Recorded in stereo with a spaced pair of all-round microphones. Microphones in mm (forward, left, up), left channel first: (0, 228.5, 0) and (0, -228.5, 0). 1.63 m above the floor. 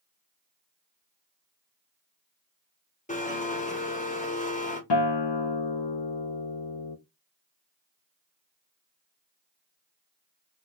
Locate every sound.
3.1 s a blender: 15° left (ahead or behind), 1.1 m
4.9 s a guitar: 60° left (ahead or behind), 0.6 m